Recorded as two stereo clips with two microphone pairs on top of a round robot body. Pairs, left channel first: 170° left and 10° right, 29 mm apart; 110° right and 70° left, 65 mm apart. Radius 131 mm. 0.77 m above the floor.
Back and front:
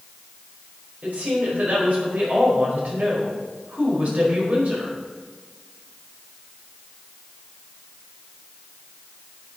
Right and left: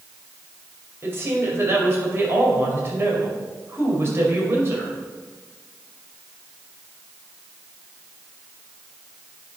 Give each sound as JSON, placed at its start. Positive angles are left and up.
{"t": 1.0, "sound": "a woman speaking", "azimuth_deg": 25, "distance_m": 5.0}